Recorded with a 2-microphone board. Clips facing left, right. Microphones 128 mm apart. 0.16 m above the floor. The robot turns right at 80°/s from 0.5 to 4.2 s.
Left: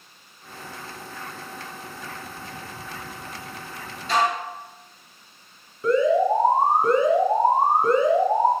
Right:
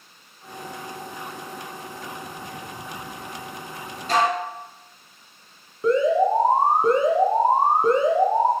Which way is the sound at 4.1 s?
45° right (ahead or behind).